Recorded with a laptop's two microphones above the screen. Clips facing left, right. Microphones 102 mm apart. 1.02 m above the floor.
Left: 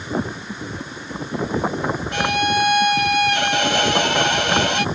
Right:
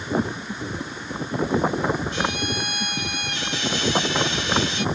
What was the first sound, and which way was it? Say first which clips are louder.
A violin: left 6 dB; 80° left.